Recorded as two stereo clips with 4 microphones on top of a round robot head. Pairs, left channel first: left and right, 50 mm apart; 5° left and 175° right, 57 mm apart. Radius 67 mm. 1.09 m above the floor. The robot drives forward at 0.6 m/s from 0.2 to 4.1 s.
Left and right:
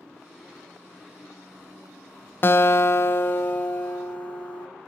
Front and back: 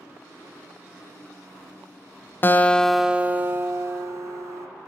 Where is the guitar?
50° left, 0.5 m; by 4.7 s 155° left, 0.9 m.